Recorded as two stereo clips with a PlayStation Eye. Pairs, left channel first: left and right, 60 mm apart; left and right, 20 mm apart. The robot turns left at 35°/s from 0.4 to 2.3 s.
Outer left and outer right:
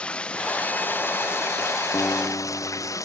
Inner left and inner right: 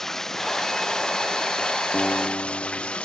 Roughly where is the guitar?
Left.